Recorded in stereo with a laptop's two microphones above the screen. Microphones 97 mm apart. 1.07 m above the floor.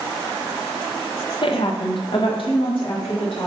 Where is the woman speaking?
50° left (ahead or behind), 0.6 m; by 3.5 s 60° left (ahead or behind), 1.7 m.